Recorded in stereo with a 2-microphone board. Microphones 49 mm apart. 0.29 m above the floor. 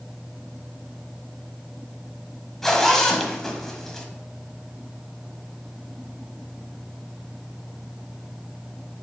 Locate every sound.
2.6 s a zipper: 5° left (ahead or behind), 1.2 m